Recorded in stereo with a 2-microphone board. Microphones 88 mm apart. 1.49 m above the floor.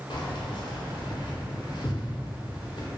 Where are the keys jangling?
55° left (ahead or behind), 0.5 m.